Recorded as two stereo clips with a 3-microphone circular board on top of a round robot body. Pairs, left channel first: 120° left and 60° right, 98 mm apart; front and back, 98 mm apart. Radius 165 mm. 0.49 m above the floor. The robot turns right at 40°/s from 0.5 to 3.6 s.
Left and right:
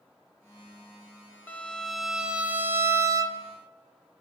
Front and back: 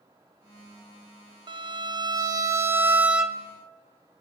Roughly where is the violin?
Behind.